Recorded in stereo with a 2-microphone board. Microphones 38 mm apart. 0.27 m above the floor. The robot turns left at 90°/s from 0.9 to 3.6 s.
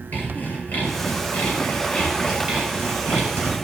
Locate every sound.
0.1 s sawing: 120° left, 5.5 m; by 3.5 s 120° right, 5.5 m